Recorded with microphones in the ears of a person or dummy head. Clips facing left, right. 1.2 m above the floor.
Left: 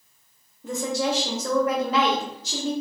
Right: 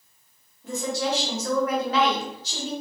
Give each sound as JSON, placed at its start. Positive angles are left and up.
{"t": 0.6, "sound": "a woman speaking", "side_deg": 90, "distance_m": 0.9}